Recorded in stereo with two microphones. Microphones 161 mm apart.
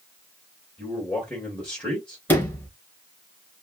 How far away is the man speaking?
About 3 m.